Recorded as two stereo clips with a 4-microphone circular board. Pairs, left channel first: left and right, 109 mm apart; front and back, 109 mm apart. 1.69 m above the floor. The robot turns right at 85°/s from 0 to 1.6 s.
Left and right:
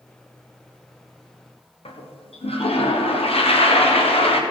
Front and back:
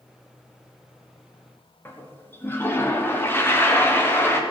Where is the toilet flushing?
70° left, 1.3 m.